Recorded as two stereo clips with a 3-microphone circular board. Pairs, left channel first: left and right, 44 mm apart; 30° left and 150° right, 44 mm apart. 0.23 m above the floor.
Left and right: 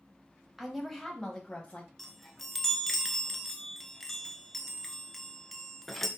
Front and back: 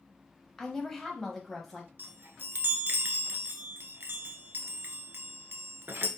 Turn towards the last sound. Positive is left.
turn(degrees=175)